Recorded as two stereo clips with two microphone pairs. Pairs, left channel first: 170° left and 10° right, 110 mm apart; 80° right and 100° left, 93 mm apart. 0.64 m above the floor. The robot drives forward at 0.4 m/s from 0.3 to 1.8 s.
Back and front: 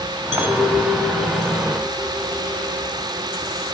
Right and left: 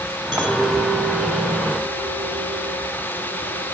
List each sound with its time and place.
0.3 s a clink: 60° left, 2.5 m; by 3.7 s 75° left, 2 m